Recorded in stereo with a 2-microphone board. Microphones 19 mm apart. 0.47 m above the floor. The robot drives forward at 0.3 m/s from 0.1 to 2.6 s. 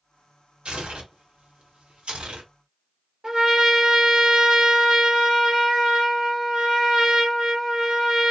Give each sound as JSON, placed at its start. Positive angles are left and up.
{"t": 0.7, "sound": "tearing paper", "side_deg": -70, "distance_m": 1.0}
{"t": 3.2, "sound": "a trumpet", "side_deg": -35, "distance_m": 1.2}